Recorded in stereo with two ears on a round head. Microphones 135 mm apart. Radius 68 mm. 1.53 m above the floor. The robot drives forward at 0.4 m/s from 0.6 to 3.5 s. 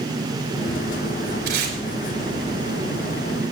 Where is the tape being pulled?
75° right (ahead or behind), 4 m.